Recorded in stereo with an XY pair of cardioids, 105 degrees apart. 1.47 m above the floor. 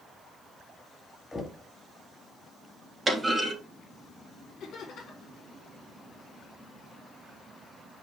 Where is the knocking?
15° left, 2.5 m.